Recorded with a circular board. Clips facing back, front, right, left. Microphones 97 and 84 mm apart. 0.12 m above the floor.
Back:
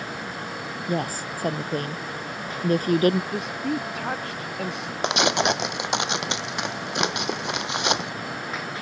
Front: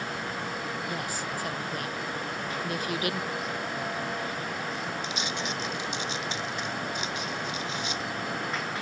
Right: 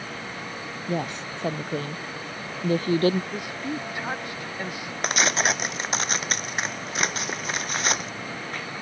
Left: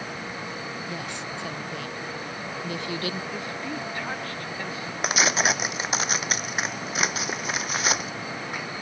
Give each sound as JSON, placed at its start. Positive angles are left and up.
{"t": 0.9, "sound": "a woman speaking", "azimuth_deg": -135}
{"t": 3.3, "sound": "a woman speaking", "azimuth_deg": -165}
{"t": 5.0, "sound": "tearing paper", "azimuth_deg": 180}